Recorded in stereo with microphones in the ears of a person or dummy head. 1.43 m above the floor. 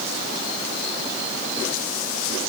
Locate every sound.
Only background noise.